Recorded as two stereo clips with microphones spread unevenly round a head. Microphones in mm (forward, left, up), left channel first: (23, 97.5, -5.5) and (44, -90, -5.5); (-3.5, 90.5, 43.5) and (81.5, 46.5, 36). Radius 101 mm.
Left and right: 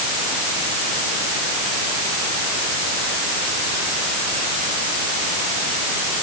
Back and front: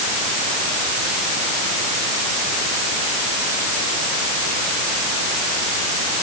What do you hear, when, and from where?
Only background noise.